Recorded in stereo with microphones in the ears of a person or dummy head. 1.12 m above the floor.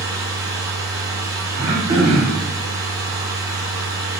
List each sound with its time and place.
0.0 s a machine running: 15° right (ahead or behind), 0.7 m
1.6 s throat clearing: 20° right (ahead or behind), 0.9 m